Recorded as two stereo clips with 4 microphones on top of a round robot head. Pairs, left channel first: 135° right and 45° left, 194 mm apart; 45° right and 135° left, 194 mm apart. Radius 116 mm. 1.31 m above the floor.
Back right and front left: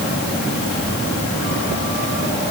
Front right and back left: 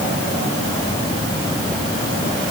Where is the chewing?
No chewing in this recording.